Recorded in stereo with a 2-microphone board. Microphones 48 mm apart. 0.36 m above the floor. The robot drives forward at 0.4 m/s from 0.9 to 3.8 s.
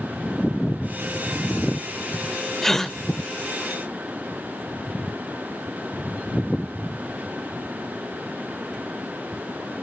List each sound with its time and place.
2.6 s a gasp: 10° left (ahead or behind), 0.8 m